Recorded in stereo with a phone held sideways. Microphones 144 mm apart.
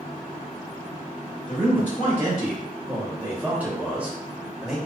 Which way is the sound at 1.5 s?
10° right (ahead or behind).